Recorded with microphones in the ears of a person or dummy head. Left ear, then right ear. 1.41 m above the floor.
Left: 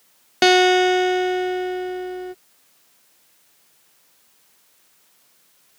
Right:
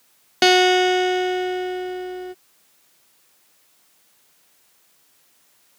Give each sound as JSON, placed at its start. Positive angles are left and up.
{"t": 0.4, "sound": "a guitar", "side_deg": 0}